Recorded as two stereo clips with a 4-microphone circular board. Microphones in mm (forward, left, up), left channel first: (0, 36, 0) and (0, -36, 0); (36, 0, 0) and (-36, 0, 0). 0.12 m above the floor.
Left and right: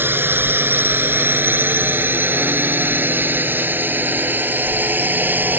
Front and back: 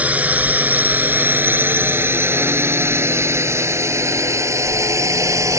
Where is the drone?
125° right; by 5.6 s 150° right.